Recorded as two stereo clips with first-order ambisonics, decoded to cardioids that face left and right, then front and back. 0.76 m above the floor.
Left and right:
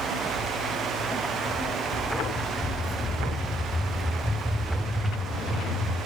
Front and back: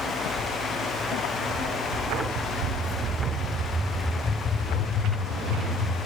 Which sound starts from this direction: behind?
Footsteps, at 0.3 s.